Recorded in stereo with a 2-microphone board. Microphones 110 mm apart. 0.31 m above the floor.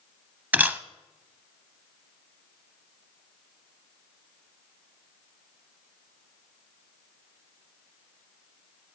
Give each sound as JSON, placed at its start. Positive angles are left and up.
{"t": 0.5, "sound": "a camera shutter", "side_deg": -15, "distance_m": 0.6}